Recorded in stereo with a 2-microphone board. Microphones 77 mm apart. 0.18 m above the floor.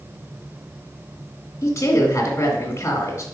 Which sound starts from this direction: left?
A woman speaking, at 1.6 s.